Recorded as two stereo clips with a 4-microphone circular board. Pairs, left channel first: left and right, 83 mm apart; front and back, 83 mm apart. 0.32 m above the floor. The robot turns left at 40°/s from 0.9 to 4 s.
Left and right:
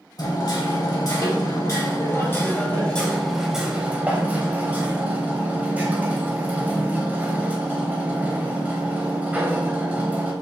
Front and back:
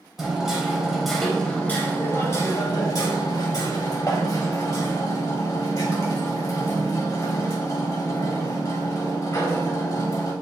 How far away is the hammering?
About 1.1 m.